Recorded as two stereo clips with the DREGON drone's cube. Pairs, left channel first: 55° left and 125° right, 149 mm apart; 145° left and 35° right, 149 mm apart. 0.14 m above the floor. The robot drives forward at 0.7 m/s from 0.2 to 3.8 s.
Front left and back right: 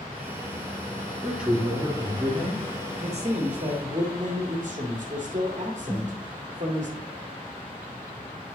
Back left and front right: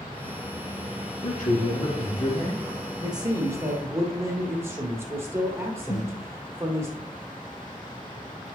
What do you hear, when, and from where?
1.2 s a man speaking: 150° left, 3 m; by 2.8 s 160° left, 3.5 m
3.0 s a man speaking: 85° right, 1.8 m; by 6.9 s 110° right, 1.8 m
5.9 s a snare drum: 115° left, 3 m